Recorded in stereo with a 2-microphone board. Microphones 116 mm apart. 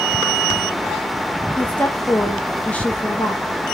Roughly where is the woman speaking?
Centre.